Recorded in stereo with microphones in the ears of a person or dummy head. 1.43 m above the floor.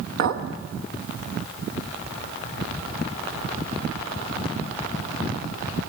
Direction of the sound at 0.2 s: 65° right (ahead or behind).